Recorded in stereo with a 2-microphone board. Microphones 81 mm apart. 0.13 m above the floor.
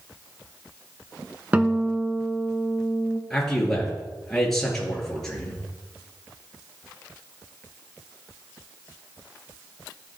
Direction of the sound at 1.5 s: 20° right (ahead or behind).